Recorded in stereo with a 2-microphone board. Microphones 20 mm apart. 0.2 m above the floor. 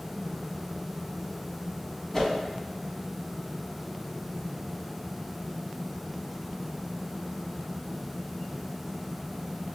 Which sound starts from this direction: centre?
A whoosh, at 2.1 s.